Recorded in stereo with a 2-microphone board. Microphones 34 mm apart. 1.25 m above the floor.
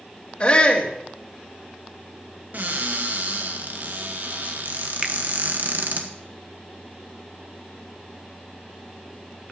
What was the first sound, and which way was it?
A shout, 35° left (ahead or behind).